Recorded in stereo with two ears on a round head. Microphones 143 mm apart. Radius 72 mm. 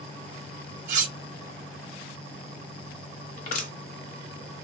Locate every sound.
0.9 s cutlery clinking: 50° right (ahead or behind), 0.9 m
3.4 s crushing: 50° left (ahead or behind), 0.8 m